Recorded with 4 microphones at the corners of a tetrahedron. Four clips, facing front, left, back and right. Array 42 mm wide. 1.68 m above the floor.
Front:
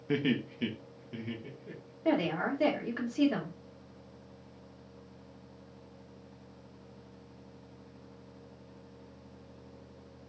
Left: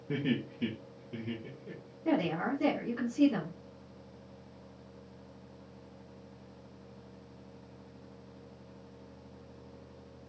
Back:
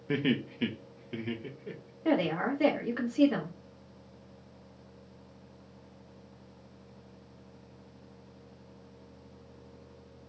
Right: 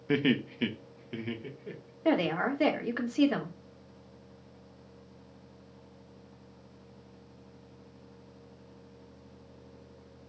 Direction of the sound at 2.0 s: 100° right.